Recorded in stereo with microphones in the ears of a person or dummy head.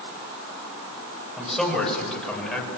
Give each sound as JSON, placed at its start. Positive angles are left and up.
{"t": 1.4, "sound": "a man speaking", "side_deg": 5, "distance_m": 8.5}